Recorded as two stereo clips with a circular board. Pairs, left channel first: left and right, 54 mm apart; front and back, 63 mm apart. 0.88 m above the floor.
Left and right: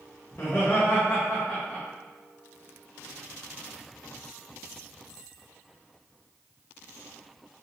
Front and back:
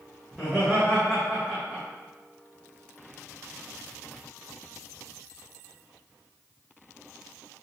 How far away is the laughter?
About 1.2 m.